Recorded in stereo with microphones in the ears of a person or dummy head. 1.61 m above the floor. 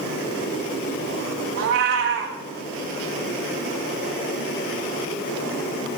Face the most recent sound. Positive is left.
turn(degrees=-55)  # may be behind; listen again after turning